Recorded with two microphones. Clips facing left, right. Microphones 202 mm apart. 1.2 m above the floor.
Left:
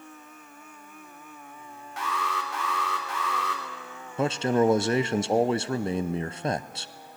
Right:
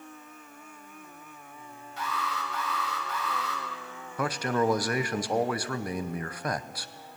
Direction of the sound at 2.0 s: 85° left.